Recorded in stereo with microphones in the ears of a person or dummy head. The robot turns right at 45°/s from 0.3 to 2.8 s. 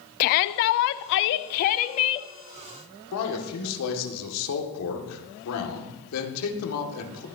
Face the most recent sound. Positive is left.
turn(degrees=85)